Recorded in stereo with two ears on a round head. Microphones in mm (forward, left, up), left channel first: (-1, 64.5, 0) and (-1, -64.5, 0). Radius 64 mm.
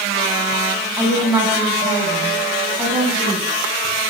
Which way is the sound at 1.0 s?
10° right (ahead or behind).